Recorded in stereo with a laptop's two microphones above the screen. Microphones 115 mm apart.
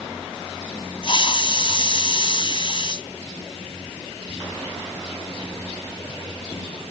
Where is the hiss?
50° left (ahead or behind).